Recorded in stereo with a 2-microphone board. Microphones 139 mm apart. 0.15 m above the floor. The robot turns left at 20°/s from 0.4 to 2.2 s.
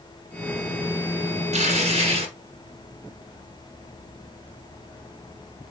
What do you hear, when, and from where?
1.5 s tearing paper: 50° right (ahead or behind), 1.4 m; by 2.3 s 40° right (ahead or behind), 1.4 m